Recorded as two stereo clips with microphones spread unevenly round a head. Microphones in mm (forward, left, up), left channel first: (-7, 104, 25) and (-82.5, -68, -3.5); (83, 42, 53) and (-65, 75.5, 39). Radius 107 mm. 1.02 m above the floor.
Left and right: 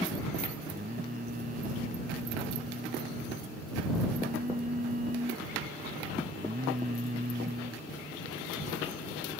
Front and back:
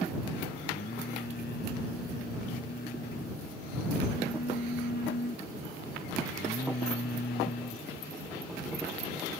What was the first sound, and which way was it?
Singing, 55° right.